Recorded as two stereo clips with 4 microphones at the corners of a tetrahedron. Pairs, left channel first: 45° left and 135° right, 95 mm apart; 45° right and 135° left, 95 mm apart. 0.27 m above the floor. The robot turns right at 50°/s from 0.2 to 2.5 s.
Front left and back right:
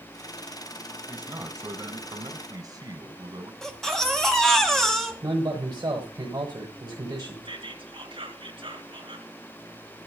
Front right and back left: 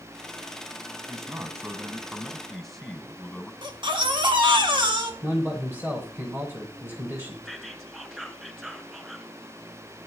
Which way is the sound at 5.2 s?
165° right.